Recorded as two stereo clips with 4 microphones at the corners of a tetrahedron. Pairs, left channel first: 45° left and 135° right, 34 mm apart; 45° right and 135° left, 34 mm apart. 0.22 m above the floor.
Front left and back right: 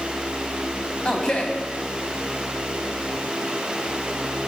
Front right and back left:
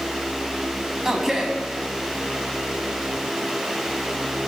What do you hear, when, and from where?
1.1 s a man speaking: 65° left, 1.6 m